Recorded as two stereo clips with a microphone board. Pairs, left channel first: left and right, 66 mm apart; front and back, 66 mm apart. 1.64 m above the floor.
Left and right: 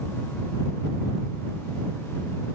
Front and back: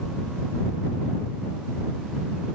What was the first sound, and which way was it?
Only background noise.